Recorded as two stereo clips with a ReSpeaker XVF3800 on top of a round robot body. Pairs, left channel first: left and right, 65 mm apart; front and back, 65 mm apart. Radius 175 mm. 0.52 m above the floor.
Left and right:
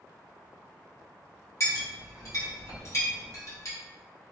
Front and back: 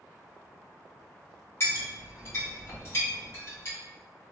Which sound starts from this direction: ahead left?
A clink, at 1.6 s.